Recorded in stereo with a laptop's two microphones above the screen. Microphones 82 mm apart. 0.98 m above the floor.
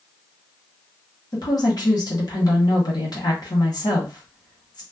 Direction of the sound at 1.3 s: 50° left (ahead or behind).